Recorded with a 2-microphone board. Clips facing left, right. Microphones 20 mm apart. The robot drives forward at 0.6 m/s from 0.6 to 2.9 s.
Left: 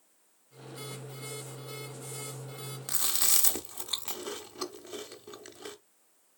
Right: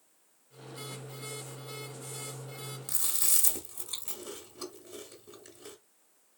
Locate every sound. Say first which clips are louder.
2.9 s chewing: left 4 dB; 45° left (ahead or behind), 0.6 m